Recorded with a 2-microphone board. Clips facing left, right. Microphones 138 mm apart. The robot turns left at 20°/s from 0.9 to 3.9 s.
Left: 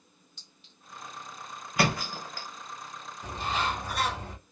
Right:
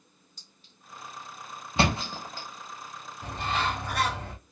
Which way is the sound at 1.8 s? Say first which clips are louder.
Right 1 dB; 25° right (ahead or behind).